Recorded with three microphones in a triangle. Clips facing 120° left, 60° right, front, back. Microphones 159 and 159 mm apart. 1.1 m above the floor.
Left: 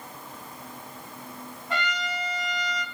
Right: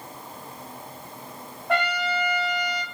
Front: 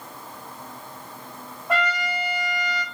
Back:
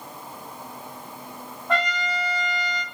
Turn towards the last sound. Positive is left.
turn(degrees=-85)